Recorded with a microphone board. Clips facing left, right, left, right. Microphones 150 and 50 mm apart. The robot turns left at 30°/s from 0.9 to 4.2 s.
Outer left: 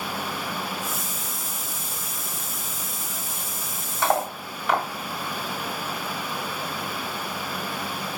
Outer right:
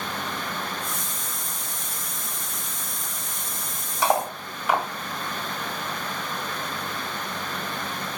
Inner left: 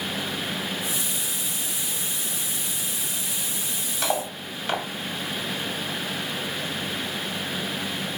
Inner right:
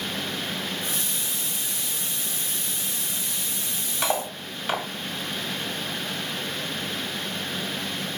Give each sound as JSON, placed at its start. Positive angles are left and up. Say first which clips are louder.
{"t": 4.0, "sound": "cutlery clinking", "louder": "outer right 1 dB, even", "side_deg": -15, "distance_m": 1.7}